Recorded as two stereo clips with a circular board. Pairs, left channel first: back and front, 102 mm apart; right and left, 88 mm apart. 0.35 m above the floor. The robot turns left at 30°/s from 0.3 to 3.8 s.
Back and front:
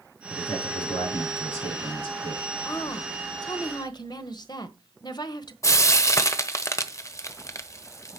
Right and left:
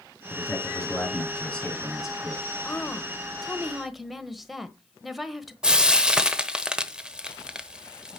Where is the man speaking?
130° right, 5 m; by 2.4 s 165° left, 5 m.